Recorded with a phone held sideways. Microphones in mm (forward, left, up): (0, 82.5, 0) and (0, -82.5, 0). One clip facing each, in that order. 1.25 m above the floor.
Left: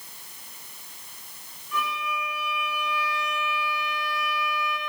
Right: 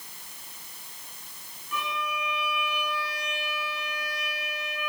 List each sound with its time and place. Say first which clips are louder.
1.7 s a violin: left 2 dB; 65° right (ahead or behind), 3.5 m